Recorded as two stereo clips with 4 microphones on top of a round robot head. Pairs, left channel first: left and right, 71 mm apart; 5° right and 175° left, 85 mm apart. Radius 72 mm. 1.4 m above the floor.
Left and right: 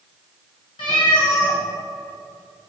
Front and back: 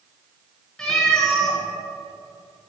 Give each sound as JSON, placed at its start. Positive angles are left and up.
{"t": 0.8, "sound": "a cat meowing", "azimuth_deg": 70, "distance_m": 2.5}